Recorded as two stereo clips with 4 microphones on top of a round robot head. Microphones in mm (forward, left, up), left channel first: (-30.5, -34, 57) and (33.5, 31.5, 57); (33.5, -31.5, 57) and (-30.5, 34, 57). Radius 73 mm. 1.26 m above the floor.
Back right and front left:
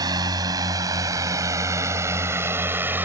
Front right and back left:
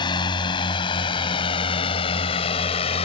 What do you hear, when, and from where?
0.0 s a drone: 5° right; by 3.0 s 25° right